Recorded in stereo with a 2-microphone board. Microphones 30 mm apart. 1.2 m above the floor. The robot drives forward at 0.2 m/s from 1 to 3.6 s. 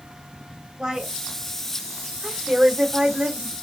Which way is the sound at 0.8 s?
30° right (ahead or behind).